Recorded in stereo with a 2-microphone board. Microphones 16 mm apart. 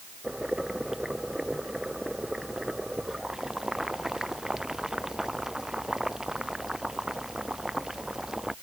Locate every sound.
0.2 s boiling: 30° right (ahead or behind)